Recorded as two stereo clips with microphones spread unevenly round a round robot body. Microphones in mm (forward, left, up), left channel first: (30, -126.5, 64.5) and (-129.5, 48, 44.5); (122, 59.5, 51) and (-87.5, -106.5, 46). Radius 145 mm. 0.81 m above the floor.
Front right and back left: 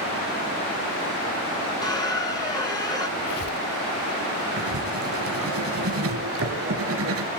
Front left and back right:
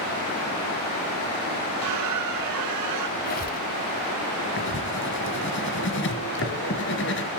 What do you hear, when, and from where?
1.8 s a squeak: 120° right, 4.5 m
3.2 s a squeak: 15° right, 1.2 m
4.6 s writing: 90° left, 3 m